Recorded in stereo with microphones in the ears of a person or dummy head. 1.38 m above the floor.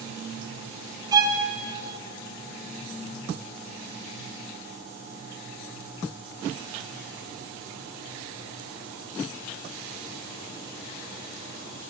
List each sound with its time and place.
1.1 s a violin: 25° right (ahead or behind), 0.5 m